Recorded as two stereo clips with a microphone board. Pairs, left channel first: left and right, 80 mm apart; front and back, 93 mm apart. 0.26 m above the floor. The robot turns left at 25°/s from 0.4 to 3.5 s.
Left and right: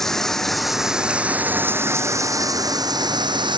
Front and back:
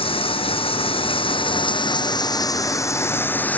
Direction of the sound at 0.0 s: 5° left.